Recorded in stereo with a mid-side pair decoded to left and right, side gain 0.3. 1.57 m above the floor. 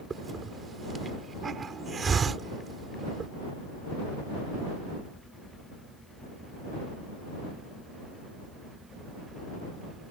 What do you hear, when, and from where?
0.1 s a hiss: 55° right